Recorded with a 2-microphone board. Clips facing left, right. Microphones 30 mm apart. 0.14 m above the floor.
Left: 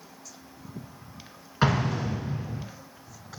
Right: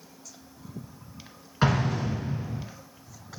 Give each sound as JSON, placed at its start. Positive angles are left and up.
{"t": 1.6, "sound": "an explosion", "side_deg": 10, "distance_m": 1.6}